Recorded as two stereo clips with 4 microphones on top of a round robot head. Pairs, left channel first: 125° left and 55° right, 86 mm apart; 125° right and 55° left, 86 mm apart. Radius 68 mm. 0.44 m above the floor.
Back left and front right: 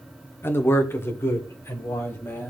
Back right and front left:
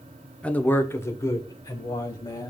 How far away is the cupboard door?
I don't hear a cupboard door.